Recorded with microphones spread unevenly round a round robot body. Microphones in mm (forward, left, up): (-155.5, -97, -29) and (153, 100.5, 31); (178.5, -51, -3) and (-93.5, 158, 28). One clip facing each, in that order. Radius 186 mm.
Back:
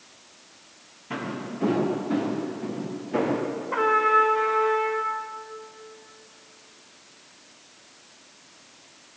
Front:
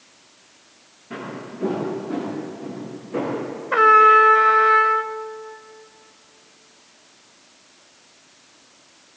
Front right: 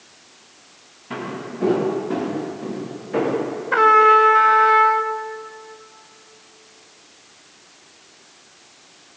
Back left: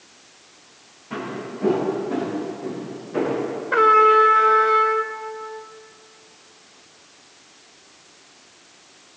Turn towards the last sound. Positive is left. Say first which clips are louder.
# front 7 dB, even
turn(degrees=45)